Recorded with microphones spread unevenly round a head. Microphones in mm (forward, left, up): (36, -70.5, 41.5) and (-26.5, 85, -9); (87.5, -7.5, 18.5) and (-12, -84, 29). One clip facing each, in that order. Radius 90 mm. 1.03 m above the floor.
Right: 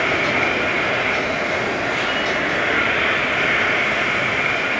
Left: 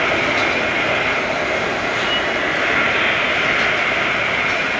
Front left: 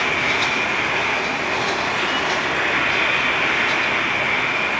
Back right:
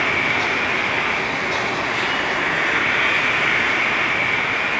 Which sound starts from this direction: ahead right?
An insect, at 0.0 s.